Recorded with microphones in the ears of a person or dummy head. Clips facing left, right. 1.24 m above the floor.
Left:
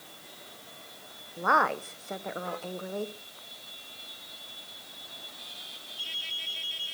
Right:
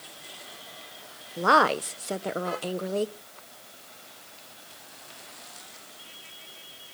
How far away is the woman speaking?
About 0.6 m.